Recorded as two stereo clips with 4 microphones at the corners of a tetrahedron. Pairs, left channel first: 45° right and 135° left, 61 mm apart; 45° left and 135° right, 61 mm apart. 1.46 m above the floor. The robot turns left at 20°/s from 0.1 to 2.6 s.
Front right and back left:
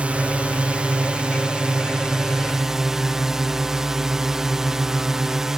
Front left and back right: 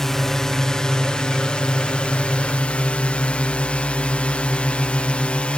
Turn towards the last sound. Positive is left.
turn(degrees=65)